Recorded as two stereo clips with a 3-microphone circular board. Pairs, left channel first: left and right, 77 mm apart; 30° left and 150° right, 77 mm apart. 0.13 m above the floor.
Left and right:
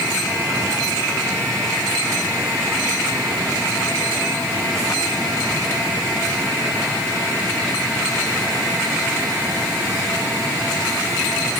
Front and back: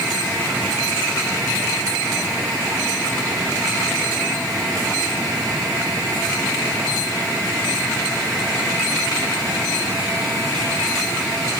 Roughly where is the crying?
I don't hear crying.